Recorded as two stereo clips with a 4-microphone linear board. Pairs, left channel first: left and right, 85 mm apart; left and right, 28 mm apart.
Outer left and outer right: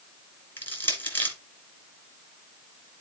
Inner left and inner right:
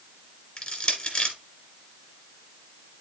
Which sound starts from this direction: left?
Crushing, at 0.6 s.